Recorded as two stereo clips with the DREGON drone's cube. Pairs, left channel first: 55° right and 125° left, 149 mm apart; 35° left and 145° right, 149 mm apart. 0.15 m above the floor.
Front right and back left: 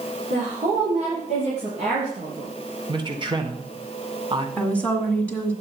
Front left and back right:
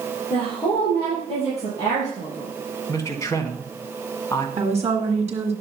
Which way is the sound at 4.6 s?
135° right.